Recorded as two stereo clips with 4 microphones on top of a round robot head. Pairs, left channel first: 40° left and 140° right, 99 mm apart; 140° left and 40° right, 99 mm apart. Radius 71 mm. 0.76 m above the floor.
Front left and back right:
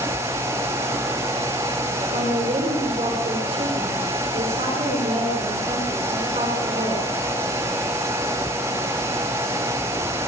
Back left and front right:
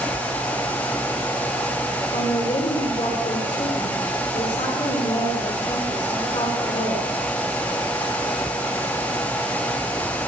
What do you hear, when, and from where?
2.1 s a woman speaking: 175° right, 7.5 m